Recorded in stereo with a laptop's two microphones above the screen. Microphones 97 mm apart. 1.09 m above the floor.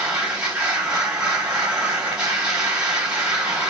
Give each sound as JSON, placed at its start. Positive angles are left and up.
{"t": 0.0, "sound": "a machine running", "side_deg": -10, "distance_m": 1.6}